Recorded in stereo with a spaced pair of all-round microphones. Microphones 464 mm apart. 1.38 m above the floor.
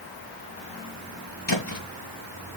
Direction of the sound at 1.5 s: 60° left (ahead or behind).